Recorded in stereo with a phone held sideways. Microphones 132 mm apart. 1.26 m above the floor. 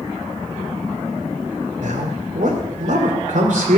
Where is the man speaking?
75° right (ahead or behind), 3.5 m.